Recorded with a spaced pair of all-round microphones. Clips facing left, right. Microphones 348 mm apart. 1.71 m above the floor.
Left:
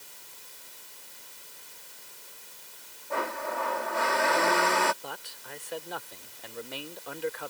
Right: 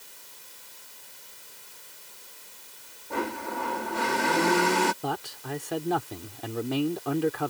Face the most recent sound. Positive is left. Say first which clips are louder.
# right 11 dB
turn(degrees=-80)